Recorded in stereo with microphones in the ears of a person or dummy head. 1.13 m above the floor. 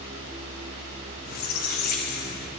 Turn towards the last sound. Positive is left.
turn(degrees=45)  # may be behind; listen again after turning